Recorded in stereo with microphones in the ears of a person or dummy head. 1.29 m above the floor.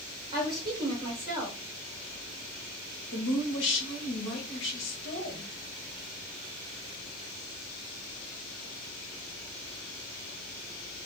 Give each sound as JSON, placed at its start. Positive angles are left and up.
{"t": 0.3, "sound": "a woman speaking", "side_deg": -25, "distance_m": 1.2}
{"t": 3.1, "sound": "a woman speaking", "side_deg": 65, "distance_m": 1.1}